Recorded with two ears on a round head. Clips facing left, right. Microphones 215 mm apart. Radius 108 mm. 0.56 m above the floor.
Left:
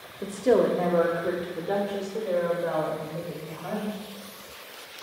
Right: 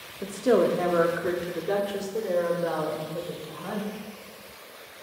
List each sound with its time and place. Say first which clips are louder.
0.2 s a woman speaking: even; centre (ahead or behind), 0.7 m; by 4.0 s 50° right (ahead or behind), 2 m